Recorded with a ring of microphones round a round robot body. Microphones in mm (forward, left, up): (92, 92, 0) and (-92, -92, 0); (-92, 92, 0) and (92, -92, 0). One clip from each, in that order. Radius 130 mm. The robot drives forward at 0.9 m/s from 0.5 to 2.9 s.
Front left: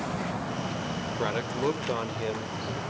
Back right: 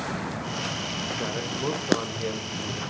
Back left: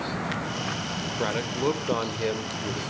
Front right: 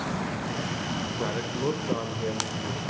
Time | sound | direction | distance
1.2 | a man speaking | 85° left | 1.8 m